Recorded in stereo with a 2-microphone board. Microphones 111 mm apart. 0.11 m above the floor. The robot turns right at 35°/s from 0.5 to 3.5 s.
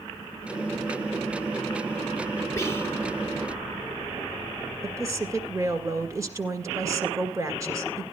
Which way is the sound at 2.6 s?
25° left (ahead or behind).